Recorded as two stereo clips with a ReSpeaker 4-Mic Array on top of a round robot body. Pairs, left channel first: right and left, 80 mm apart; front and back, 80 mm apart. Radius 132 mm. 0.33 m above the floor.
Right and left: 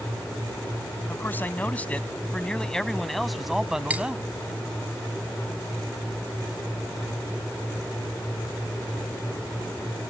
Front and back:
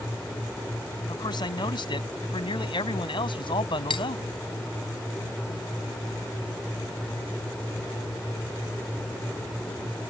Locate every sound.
1.1 s a man speaking: 25° right; by 4.2 s 10° left
3.9 s cutlery clinking: 15° left